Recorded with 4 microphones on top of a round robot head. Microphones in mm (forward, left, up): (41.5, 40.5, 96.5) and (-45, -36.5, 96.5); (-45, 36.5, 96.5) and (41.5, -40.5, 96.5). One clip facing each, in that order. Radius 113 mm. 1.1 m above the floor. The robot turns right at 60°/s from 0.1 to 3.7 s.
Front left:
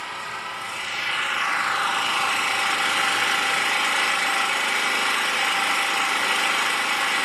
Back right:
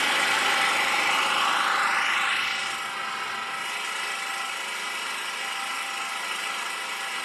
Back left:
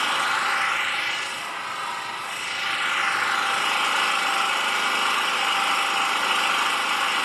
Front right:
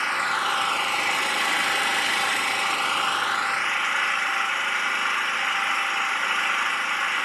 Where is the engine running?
145° right, 0.8 m; by 7.3 s 70° left, 0.8 m.